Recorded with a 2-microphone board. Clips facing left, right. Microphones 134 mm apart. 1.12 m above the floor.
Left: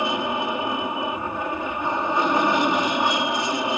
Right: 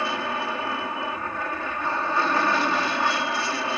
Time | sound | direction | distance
0.0 | an aircraft | 20° left (ahead or behind) | ?